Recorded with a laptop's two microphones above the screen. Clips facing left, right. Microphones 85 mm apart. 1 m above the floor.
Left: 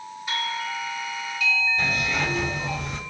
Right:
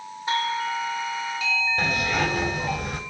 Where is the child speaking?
No child speaking in this recording.